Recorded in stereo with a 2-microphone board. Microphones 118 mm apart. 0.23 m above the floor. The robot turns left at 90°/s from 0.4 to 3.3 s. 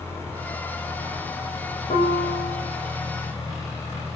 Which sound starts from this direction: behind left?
A piano, at 1.9 s.